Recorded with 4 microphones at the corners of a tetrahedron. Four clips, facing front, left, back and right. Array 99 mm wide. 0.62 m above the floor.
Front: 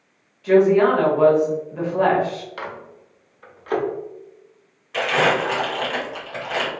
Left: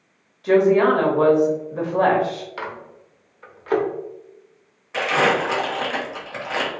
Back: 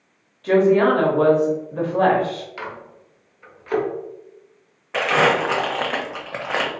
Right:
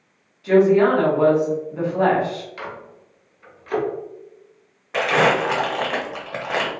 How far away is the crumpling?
About 0.8 m.